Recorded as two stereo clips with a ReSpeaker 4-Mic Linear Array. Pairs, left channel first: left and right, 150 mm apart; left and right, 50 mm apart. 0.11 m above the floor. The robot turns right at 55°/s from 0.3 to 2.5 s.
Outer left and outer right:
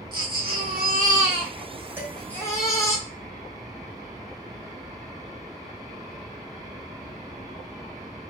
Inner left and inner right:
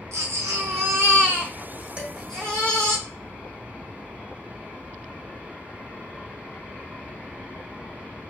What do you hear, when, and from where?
0.1 s a baby crying: 100° right, 2.5 m; by 3.0 s 20° left, 2.5 m
2.0 s dishes clattering: 15° right (ahead or behind), 3.5 m; by 2.1 s 5° right (ahead or behind), 3.5 m